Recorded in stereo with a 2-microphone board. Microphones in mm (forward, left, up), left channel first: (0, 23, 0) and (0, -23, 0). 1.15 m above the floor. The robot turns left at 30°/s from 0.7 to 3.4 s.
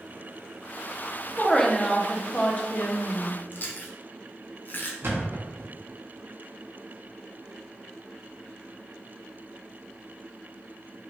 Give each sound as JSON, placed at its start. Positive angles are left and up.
{"t": 1.4, "sound": "a woman speaking", "azimuth_deg": 165, "distance_m": 0.5}
{"t": 3.5, "sound": "chewing", "side_deg": 45, "distance_m": 0.5}
{"t": 5.0, "sound": "a thud", "side_deg": -60, "distance_m": 0.7}